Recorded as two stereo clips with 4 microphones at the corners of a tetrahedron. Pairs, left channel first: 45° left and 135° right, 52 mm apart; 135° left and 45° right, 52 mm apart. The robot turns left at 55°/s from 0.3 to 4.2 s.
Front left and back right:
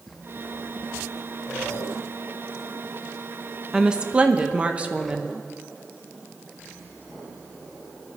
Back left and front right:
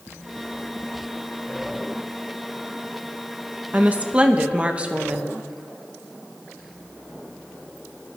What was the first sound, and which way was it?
A woman speaking, 65° right.